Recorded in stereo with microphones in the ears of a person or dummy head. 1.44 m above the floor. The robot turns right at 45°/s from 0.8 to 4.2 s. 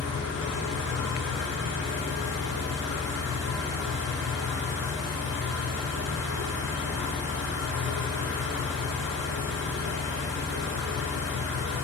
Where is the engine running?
155° left, 1.9 m; by 11.8 s 55° right, 1.9 m.